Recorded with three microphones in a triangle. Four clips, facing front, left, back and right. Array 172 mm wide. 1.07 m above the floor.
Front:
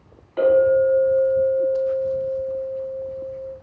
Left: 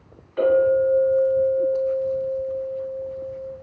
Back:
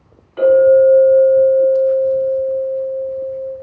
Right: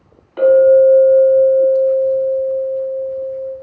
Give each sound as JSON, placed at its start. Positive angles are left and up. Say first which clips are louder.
{"t": 0.4, "sound": "a clink", "louder": "right 9 dB, back 7 dB", "azimuth_deg": -65, "distance_m": 1.5}